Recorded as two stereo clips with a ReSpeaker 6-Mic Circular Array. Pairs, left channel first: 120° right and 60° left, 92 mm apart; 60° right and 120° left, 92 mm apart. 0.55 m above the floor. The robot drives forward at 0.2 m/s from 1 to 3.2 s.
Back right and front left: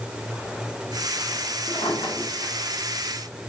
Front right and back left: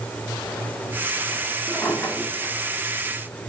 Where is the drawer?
130° right, 1.4 m; by 3.5 s 140° right, 1.6 m.